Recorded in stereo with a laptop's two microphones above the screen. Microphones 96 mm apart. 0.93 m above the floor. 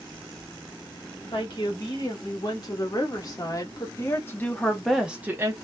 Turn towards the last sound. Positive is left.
turn(degrees=-30)  # may be behind; listen again after turning